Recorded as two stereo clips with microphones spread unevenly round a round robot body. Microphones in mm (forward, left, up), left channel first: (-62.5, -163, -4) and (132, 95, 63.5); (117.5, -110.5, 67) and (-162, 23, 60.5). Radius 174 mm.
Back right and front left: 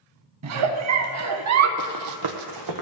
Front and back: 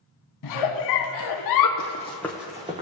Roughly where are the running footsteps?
Ahead left.